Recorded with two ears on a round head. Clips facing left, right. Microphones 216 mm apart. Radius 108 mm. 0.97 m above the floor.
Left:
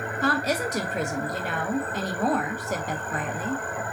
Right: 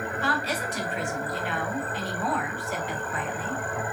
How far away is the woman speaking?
About 0.5 m.